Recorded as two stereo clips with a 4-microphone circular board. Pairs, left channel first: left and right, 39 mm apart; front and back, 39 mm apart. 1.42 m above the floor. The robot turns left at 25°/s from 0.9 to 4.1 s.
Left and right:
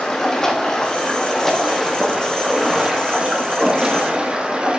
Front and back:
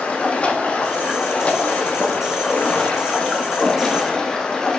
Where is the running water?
20° left, 0.9 m; by 4.8 s 60° right, 0.9 m.